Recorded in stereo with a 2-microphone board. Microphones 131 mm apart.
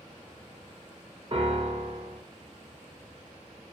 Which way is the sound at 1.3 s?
45° right (ahead or behind).